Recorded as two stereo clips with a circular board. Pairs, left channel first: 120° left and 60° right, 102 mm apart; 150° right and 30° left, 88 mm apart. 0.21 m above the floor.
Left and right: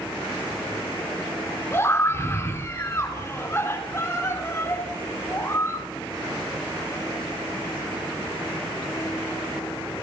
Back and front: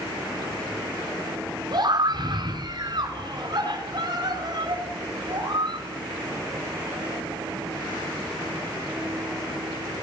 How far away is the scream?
About 3 m.